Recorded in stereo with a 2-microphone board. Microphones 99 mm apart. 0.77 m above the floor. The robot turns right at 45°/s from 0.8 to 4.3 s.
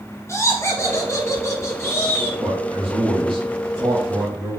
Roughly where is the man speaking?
Behind right.